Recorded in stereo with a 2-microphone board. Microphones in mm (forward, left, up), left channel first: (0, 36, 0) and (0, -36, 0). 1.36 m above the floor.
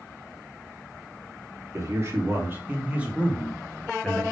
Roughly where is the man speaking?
Right.